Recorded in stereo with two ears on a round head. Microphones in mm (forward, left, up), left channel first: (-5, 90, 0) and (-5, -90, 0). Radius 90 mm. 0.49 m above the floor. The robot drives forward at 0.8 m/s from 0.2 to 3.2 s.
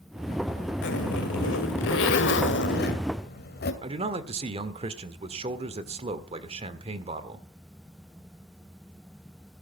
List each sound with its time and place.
0.8 s a zipper: 60° left (ahead or behind), 2 m; by 3.7 s 50° left (ahead or behind), 2.5 m
3.8 s a man speaking: 30° right (ahead or behind), 1.5 m